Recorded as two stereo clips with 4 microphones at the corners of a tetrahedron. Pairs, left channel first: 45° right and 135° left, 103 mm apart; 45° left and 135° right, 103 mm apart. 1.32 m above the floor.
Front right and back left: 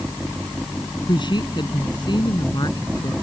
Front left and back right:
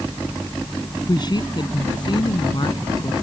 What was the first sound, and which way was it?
A woman speaking, 5° right.